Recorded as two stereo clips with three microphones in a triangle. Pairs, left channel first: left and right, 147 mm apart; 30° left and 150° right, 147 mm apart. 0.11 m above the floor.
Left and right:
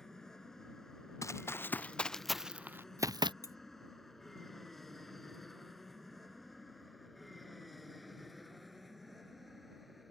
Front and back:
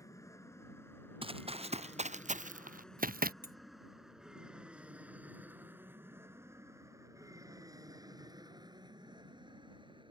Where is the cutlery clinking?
25° left.